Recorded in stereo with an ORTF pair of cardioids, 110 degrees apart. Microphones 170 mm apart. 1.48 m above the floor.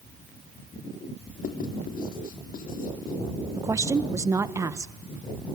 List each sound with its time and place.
1.4 s writing: 55° left, 3 m
3.5 s a woman speaking: 15° right, 1.4 m